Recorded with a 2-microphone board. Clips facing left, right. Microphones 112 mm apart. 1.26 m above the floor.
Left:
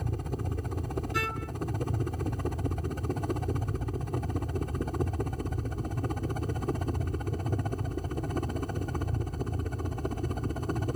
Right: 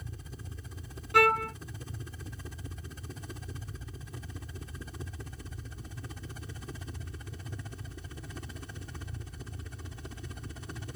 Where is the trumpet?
65° right (ahead or behind).